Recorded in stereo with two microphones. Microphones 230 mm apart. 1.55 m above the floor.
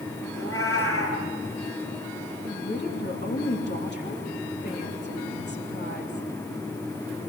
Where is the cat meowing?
65° left (ahead or behind), 7.5 m.